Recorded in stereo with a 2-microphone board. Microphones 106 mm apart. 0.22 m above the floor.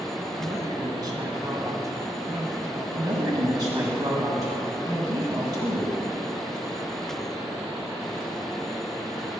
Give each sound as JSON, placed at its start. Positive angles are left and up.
{"t": 0.4, "sound": "a woman speaking", "side_deg": -35, "distance_m": 2.0}
{"t": 3.0, "sound": "a woman speaking", "side_deg": -35, "distance_m": 1.9}